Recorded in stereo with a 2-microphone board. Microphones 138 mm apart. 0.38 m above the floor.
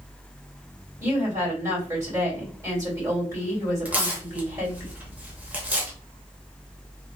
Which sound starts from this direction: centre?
Tearing paper, at 3.9 s.